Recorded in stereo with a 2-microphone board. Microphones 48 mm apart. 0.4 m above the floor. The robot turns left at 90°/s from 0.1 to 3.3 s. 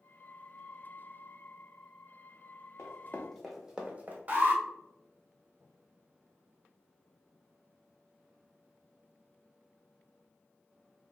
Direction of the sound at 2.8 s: 70° left (ahead or behind).